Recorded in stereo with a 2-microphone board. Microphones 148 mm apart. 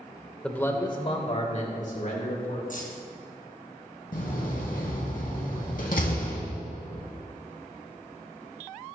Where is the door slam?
75° left (ahead or behind), 3 m.